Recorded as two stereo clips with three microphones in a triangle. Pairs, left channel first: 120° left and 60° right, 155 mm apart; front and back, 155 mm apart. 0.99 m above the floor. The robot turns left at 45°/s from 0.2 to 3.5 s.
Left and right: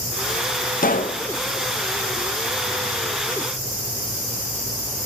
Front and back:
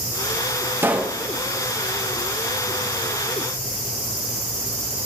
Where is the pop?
105° left, 0.6 m; by 1.2 s 90° left, 0.6 m.